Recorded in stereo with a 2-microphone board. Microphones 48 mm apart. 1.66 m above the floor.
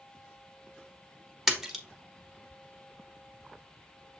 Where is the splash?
5° right (ahead or behind), 1.1 m.